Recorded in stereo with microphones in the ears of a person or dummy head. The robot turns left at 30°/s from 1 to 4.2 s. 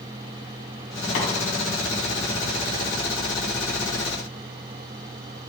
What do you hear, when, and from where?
1.1 s tapping: 45° left (ahead or behind), 2 m